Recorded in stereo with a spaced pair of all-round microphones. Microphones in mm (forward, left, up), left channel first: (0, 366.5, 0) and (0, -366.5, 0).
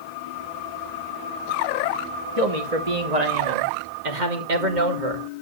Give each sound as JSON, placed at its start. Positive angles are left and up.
{"t": 2.4, "sound": "a man speaking", "side_deg": -50, "distance_m": 2.5}